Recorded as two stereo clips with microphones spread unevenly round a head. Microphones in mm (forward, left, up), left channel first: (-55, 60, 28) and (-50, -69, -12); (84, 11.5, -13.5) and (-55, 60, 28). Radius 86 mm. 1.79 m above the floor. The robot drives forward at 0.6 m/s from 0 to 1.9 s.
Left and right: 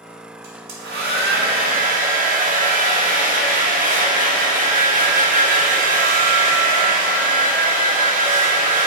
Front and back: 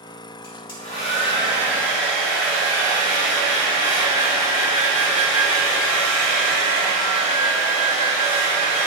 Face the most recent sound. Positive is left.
turn(degrees=-110)